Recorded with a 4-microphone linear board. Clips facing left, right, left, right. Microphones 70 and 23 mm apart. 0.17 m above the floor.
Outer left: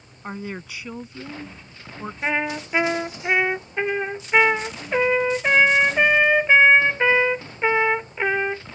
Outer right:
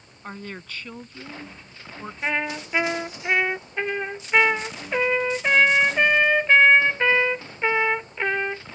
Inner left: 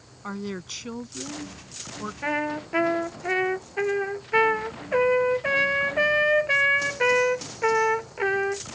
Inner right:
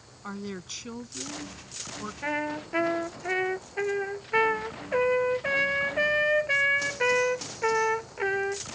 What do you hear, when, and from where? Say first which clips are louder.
0.2 s a woman speaking: outer left 4 dB, inner left 4 dB; 10° left (ahead or behind)
2.2 s a trumpet: outer left 2 dB, inner left 3 dB; 10° left (ahead or behind)